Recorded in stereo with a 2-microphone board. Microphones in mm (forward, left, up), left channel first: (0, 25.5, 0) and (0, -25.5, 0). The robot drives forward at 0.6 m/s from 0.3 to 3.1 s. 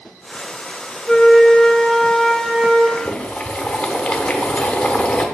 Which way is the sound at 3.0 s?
25° left (ahead or behind).